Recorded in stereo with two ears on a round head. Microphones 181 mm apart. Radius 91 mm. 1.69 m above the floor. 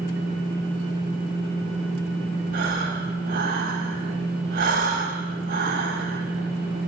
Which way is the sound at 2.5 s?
45° right (ahead or behind).